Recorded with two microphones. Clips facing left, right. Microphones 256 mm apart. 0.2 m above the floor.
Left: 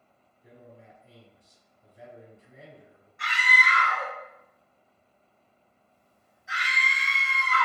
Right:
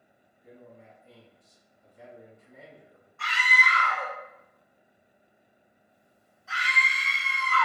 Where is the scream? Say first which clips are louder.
Even; 20° left (ahead or behind), 1.0 m.